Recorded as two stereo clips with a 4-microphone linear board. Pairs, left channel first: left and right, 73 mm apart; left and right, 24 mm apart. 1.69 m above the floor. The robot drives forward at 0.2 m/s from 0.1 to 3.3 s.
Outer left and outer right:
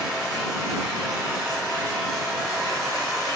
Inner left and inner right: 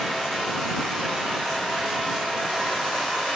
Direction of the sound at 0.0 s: 10° right (ahead or behind).